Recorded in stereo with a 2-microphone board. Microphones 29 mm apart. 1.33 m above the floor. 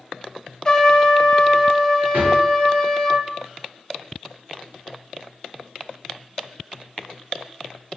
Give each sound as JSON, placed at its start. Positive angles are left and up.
{"t": 0.7, "sound": "a trumpet", "side_deg": 20, "distance_m": 0.5}
{"t": 2.1, "sound": "a drawer", "side_deg": -65, "distance_m": 2.0}